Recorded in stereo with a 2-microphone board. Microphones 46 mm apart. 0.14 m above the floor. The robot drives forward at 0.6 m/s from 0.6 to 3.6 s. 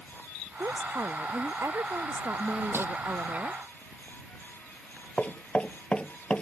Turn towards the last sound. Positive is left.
turn(degrees=25)  # may be behind; listen again after turning